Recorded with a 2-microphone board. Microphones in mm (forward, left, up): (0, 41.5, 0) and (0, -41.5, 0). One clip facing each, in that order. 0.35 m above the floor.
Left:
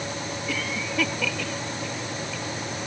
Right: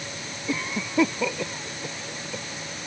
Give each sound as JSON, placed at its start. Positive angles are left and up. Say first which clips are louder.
{"t": 0.5, "sound": "a cough", "louder": "right 4 dB", "side_deg": -25}